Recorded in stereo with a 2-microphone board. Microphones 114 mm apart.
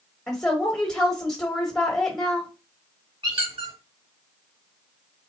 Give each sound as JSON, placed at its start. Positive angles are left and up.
{"t": 0.3, "sound": "a woman speaking", "side_deg": 5, "distance_m": 1.0}
{"t": 3.2, "sound": "a squeak", "side_deg": -50, "distance_m": 1.0}